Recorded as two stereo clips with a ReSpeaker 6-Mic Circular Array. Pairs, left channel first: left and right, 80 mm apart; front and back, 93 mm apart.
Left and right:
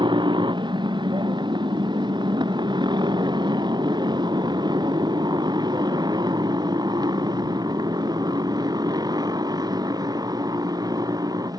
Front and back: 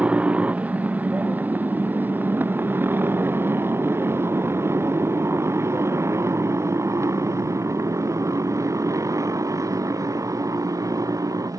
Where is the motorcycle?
105° right; by 11.6 s 130° right.